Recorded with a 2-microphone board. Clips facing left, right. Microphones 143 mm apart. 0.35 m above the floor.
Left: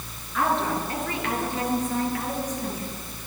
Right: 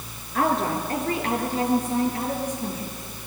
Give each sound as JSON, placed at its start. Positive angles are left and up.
{"t": 0.3, "sound": "a woman speaking", "side_deg": -45, "distance_m": 5.0}